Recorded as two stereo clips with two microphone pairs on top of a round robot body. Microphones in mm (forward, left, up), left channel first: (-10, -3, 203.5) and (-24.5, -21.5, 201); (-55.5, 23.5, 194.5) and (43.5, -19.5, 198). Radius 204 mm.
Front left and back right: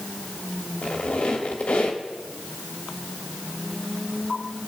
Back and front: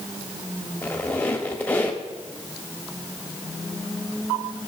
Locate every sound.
0.8 s a squeak: 80° left, 1.2 m